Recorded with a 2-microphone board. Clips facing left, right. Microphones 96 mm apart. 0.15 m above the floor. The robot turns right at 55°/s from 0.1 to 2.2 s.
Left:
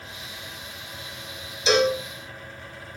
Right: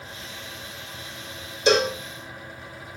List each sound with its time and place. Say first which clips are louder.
1.7 s a cowbell: even; 55° right (ahead or behind), 0.5 m; by 2.0 s 45° right (ahead or behind), 0.5 m